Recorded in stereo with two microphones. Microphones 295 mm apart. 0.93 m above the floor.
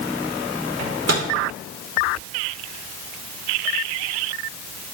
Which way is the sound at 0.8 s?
60° right (ahead or behind).